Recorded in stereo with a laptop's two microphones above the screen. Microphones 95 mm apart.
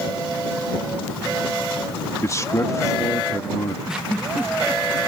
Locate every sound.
2.2 s a man speaking: 35° left (ahead or behind)
3.9 s a giggle: 10° right (ahead or behind)